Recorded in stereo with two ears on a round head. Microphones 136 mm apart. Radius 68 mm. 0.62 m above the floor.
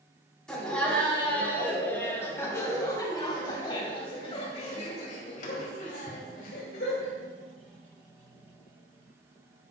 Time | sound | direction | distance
0.5 | laughter | 5° left (ahead or behind) | 4 m